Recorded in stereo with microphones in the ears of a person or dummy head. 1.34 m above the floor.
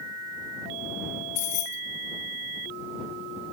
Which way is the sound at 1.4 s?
35° left (ahead or behind).